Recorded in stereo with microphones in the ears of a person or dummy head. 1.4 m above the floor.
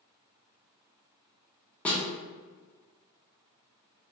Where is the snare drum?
10° left (ahead or behind), 0.6 m.